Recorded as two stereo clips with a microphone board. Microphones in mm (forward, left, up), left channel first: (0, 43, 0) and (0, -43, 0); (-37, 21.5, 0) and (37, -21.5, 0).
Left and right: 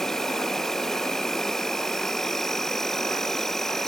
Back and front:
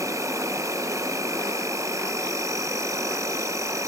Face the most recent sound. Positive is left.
turn(degrees=5)